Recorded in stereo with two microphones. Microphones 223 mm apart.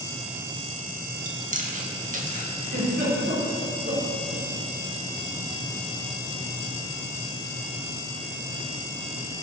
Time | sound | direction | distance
1.2 | chewing | 35° right (ahead or behind) | 1.9 m
2.6 | a giggle | 60° right (ahead or behind) | 5.5 m